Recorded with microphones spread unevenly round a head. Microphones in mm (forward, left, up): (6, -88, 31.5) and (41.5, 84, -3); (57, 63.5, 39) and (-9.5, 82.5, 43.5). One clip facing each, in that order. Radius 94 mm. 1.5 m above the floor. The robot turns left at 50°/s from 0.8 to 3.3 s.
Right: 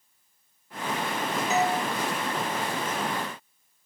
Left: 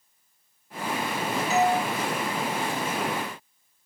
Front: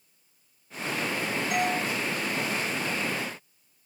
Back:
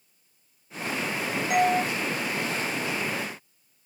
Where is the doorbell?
155° right, 2.5 m; by 1.8 s 170° right, 2.5 m.